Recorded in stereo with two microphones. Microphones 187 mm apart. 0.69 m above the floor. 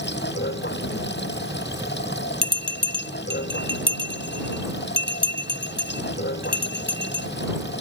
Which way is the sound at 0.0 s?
70° left (ahead or behind).